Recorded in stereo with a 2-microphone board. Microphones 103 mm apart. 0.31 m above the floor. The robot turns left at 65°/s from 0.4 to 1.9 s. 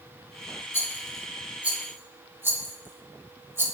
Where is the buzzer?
No buzzer in this recording.